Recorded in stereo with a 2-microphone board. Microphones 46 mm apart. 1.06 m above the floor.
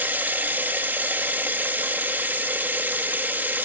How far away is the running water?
About 1.3 m.